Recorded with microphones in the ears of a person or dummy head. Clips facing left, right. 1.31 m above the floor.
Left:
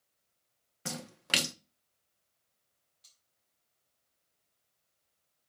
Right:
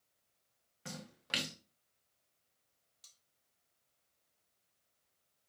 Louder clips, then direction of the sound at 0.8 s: Left 7 dB; 60° left (ahead or behind).